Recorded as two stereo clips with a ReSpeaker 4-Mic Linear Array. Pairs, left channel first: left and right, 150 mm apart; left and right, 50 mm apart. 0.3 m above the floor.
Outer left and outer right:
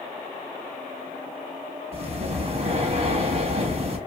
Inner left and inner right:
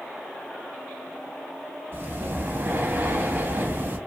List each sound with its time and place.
1.9 s breathing: 45° right (ahead or behind), 0.7 m